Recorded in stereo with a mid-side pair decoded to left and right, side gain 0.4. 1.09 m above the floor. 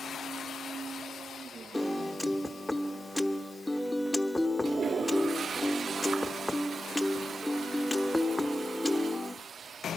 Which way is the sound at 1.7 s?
5° left.